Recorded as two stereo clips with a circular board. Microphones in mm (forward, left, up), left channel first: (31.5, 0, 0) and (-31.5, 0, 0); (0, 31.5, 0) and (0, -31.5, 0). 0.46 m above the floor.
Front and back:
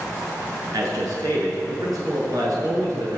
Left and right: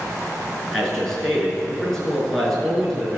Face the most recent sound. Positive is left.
turn(degrees=175)